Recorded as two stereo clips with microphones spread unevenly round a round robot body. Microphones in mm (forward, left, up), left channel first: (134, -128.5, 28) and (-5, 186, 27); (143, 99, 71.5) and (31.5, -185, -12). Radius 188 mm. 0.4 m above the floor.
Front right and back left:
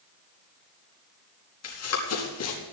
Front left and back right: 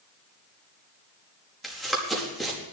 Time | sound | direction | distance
1.6 | running footsteps | 20° right | 4.5 m